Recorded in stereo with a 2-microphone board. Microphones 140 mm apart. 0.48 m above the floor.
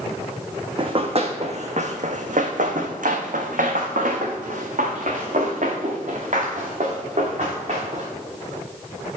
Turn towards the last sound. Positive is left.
turn(degrees=-50)  # may be behind; listen again after turning